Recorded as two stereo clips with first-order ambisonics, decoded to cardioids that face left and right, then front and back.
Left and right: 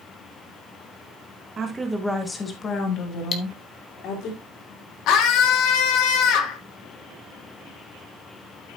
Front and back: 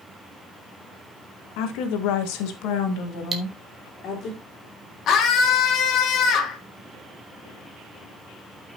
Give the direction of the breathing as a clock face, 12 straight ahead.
I don't hear breathing.